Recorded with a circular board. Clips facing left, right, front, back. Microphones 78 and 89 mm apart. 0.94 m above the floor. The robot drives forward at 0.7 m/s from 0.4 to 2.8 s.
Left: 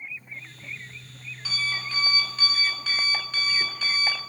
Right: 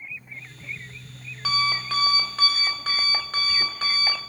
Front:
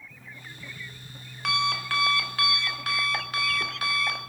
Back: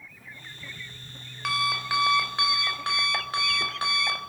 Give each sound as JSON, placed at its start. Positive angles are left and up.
{"t": 0.1, "sound": "an alarm clock", "azimuth_deg": -60, "distance_m": 1.5}